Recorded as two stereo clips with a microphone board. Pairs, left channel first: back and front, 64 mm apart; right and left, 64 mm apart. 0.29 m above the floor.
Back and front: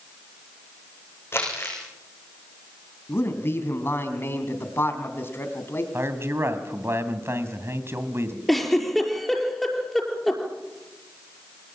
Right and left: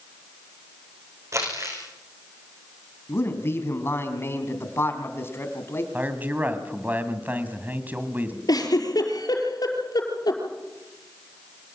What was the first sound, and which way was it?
Crumpling, 130° left.